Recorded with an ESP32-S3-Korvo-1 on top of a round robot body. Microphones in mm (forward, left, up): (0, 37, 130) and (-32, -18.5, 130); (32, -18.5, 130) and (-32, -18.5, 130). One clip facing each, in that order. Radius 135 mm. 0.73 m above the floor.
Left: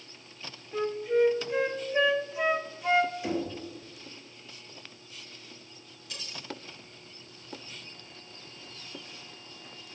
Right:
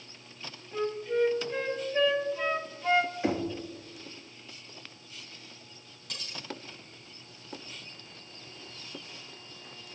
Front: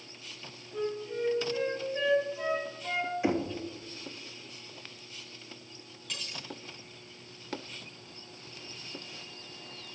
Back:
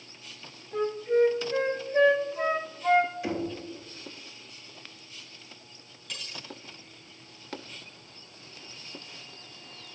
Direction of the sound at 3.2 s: 65° right.